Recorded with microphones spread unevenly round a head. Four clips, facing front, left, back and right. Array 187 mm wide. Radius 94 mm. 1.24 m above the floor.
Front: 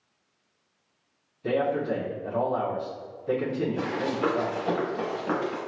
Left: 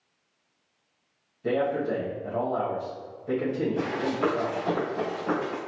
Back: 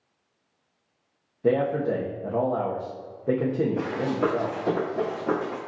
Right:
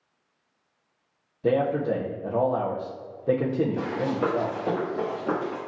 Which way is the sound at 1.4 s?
135° right.